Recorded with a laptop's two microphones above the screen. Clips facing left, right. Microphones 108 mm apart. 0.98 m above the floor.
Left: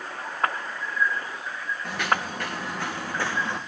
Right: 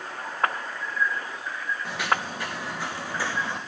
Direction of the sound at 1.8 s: 60° left (ahead or behind).